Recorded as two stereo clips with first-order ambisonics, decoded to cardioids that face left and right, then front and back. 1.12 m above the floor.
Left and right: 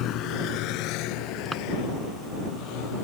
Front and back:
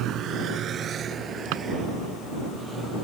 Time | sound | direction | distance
0.0 | a vehicle | 135° left | ?
1.5 | a drawer | 175° left | ?